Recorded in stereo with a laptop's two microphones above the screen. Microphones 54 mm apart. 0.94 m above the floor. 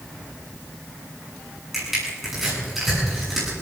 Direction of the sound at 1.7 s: 5° right (ahead or behind).